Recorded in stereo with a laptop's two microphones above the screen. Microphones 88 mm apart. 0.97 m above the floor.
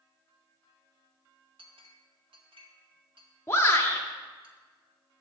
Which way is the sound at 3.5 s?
30° left (ahead or behind).